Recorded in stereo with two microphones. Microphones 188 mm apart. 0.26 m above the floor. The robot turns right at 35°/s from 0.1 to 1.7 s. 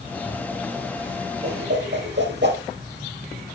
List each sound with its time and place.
1.4 s a whoosh: 60° right (ahead or behind), 4 m; by 2.6 s 65° right (ahead or behind), 4 m